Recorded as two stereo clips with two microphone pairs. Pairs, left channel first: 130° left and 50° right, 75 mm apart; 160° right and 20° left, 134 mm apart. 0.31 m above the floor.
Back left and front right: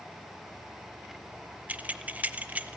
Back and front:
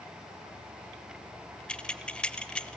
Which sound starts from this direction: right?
Keys jangling, at 1.7 s.